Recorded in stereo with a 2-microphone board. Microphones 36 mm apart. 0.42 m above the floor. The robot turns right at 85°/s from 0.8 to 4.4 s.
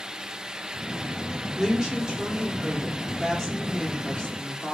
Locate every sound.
1.6 s a woman speaking: 10° right (ahead or behind), 1.0 m; by 4.8 s 20° left (ahead or behind), 1.0 m